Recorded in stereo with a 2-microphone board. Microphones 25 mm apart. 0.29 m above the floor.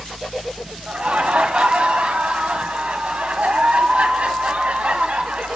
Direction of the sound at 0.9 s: 55° right (ahead or behind).